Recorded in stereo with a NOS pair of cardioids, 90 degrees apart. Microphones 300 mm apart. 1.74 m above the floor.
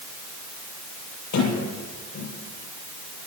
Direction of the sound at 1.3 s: 65° left.